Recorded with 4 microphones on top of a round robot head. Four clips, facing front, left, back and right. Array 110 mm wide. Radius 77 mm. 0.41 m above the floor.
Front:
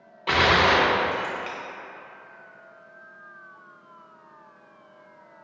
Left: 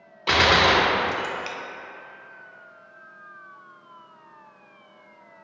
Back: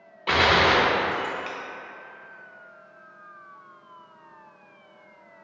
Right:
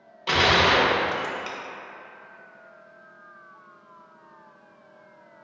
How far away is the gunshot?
About 0.5 m.